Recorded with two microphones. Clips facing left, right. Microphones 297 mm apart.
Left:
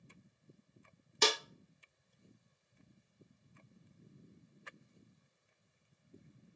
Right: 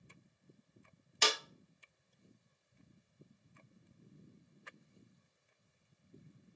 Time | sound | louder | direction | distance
1.2 | a snare drum | left 4 dB | 50° left (ahead or behind) | 0.7 m